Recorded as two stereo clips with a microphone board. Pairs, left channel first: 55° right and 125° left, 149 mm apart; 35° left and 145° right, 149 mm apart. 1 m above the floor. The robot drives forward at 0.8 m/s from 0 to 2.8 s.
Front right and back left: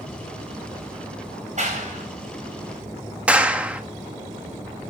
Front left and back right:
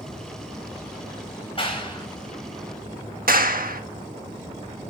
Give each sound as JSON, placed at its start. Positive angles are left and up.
{"t": 1.6, "sound": "a clap", "azimuth_deg": 85, "distance_m": 5.0}
{"t": 3.3, "sound": "a clap", "azimuth_deg": -155, "distance_m": 1.5}